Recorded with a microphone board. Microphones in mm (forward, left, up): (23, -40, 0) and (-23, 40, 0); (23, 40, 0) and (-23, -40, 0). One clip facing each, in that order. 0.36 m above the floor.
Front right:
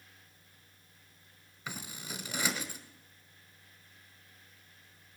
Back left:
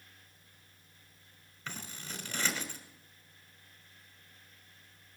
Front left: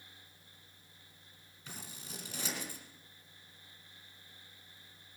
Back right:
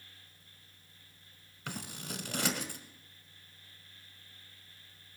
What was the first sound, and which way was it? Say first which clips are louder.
Scissors: front right 1 dB, back right 8 dB; 140° right.